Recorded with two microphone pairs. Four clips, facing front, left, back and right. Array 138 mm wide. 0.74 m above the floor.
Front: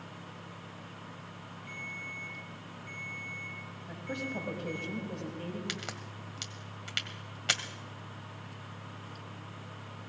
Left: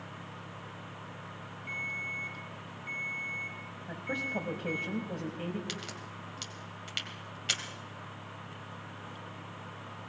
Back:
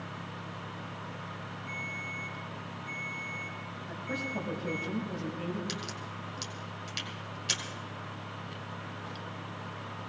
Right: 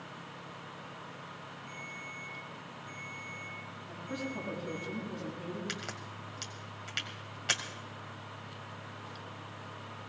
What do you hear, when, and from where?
1.7 s a ringtone: 70° left, 6.5 m
3.9 s a woman speaking: 80° left, 5 m
5.7 s a crack: 30° right, 1.7 m